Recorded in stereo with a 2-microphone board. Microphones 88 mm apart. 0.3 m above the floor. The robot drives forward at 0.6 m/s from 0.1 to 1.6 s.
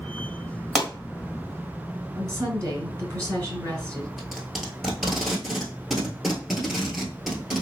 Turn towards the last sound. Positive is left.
turn(degrees=0)  # may be behind; listen again after turning